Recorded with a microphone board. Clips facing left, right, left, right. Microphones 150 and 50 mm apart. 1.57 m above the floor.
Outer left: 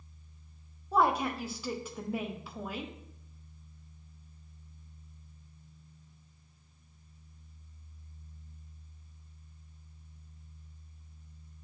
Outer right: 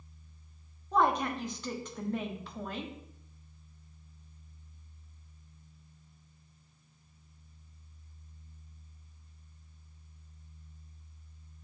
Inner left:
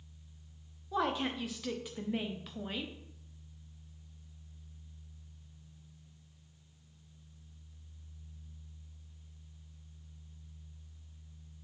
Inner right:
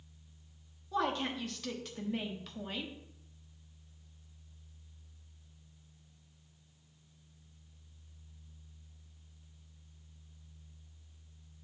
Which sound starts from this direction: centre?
A woman speaking, at 0.9 s.